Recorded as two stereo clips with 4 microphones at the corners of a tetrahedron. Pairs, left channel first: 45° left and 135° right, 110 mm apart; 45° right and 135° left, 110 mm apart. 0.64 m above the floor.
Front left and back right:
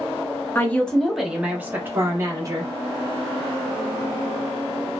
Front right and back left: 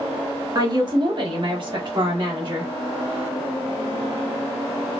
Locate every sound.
0.6 s a woman speaking: 110° left, 1.0 m; by 2.7 s 175° left, 1.6 m